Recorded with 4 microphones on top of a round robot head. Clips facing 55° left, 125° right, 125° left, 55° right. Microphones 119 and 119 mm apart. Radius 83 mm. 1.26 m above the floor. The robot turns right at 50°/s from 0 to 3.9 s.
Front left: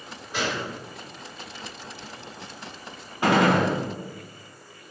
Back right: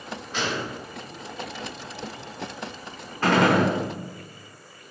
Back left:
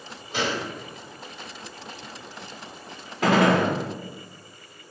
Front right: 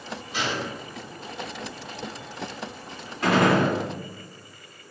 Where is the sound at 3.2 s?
130° left, 1.2 m; by 3.7 s 155° left, 1.2 m.